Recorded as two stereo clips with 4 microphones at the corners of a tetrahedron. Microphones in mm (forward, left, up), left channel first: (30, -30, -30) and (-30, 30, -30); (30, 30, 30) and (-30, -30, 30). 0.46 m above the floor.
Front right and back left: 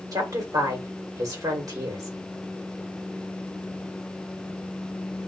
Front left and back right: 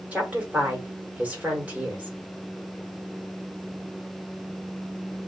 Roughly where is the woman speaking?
Behind left.